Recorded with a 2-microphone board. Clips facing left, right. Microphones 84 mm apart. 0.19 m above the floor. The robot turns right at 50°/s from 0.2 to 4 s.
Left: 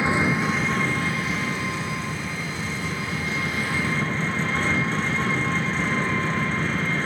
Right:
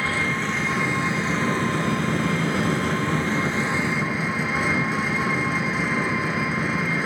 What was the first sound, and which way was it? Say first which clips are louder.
An engine running: left 3 dB; 160° left.